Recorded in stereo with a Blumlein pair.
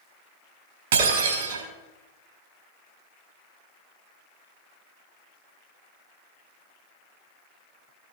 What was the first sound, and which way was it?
Breaking glass, 55° right.